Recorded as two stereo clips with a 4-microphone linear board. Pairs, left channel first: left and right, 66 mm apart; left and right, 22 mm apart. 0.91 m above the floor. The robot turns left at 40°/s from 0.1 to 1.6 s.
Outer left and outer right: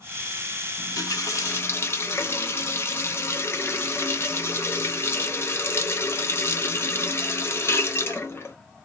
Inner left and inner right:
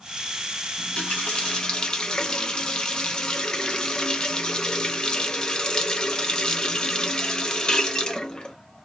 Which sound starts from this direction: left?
A running tap, at 0.8 s.